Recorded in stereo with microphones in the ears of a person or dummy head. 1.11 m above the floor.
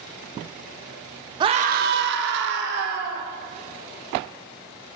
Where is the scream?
25° right (ahead or behind), 0.5 m; by 3.2 s 55° right (ahead or behind), 1.5 m.